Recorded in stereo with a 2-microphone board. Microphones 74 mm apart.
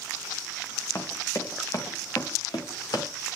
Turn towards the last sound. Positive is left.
turn(degrees=70)  # may be behind; listen again after turning